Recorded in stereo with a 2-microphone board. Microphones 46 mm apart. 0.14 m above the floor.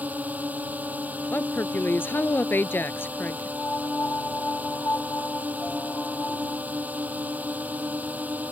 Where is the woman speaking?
55° left (ahead or behind).